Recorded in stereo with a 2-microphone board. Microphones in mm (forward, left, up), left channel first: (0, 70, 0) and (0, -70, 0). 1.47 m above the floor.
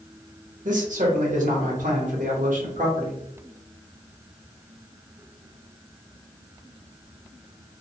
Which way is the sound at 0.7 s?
65° right (ahead or behind).